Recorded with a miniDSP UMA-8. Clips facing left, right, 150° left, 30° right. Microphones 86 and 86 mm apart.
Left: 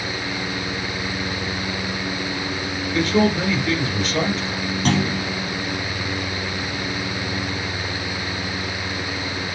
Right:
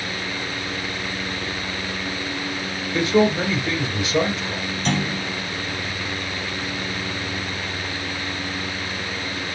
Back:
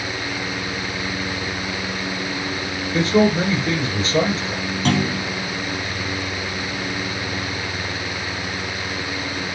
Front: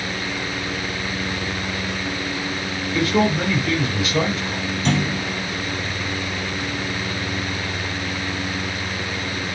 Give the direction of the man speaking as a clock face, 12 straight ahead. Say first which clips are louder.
Right 1 dB, back 3 dB; 5 o'clock.